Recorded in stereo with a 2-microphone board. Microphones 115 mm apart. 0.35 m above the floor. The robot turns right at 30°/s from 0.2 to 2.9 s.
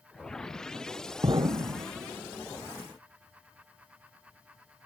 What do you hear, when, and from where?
1.2 s an explosion: 40° right (ahead or behind), 0.8 m; by 1.9 s 50° right (ahead or behind), 0.8 m